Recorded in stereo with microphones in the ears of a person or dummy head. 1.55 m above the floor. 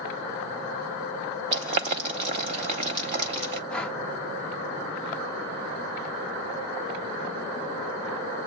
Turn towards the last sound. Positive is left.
turn(degrees=10)  # may be behind; listen again after turning